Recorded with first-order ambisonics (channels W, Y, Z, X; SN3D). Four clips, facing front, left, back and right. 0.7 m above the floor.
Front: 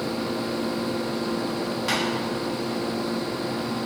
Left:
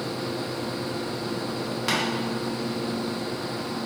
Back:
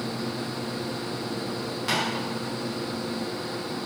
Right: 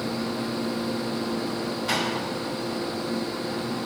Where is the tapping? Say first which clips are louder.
Left 1 dB, even; 85° left, 1.2 m.